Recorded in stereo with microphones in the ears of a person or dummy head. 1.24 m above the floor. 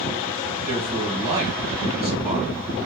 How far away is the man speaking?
About 1.6 m.